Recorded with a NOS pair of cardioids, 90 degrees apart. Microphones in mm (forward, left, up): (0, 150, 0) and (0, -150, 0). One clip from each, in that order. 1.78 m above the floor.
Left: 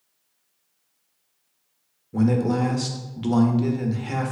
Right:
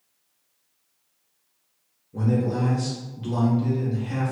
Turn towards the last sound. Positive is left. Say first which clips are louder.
# left 3 dB
turn(degrees=50)